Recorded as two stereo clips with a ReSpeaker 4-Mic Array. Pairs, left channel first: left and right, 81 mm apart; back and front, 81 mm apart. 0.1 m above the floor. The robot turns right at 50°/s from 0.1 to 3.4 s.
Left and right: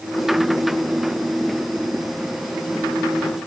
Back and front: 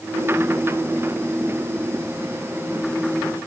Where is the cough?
I don't hear a cough.